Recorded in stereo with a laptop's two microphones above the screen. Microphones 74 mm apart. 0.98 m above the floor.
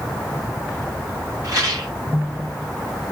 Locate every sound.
1.4 s a rattle: 50° right (ahead or behind), 2.5 m